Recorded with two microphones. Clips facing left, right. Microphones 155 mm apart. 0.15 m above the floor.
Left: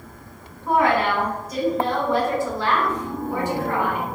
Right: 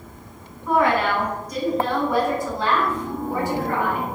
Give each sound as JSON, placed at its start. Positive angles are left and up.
{"t": 0.7, "sound": "a woman speaking", "side_deg": 25, "distance_m": 1.3}